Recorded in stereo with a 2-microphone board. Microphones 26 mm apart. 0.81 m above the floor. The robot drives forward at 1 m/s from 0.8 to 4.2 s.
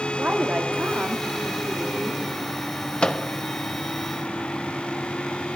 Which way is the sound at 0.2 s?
65° right (ahead or behind).